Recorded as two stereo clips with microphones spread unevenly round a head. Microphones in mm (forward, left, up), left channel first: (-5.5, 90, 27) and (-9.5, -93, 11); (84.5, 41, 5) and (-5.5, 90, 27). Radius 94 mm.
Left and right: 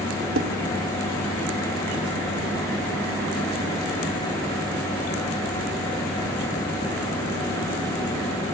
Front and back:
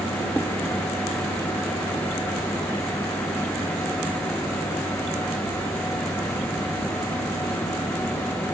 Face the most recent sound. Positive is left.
turn(degrees=-115)